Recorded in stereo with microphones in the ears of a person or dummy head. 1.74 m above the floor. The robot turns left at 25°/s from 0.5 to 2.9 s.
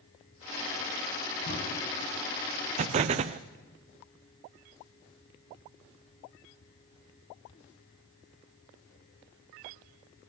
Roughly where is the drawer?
Left.